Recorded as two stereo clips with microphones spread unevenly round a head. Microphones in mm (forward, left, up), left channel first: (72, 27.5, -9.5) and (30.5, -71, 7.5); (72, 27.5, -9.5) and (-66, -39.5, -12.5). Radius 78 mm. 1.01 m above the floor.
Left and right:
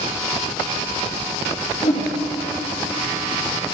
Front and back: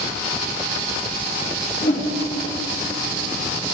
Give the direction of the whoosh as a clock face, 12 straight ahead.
10 o'clock.